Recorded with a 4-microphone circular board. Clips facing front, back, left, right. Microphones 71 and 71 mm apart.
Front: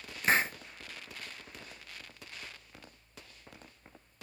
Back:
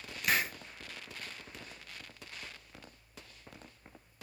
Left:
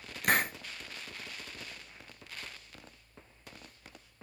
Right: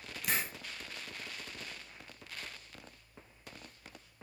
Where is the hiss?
60° left, 0.6 m.